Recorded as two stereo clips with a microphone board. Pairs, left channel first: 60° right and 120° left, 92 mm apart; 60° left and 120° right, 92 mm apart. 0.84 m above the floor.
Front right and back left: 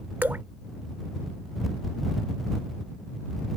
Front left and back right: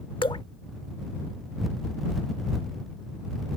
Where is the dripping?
55° left.